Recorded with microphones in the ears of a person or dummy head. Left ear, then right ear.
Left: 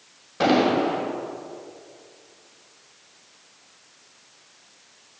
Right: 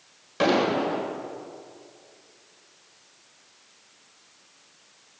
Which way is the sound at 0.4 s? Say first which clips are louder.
Left 3 dB; 65° right (ahead or behind).